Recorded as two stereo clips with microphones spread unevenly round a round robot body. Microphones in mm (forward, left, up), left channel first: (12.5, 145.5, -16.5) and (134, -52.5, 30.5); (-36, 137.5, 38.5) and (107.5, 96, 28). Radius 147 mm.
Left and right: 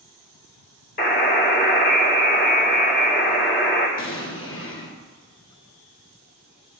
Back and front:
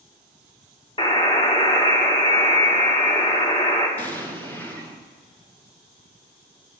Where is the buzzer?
115° left, 1.8 m.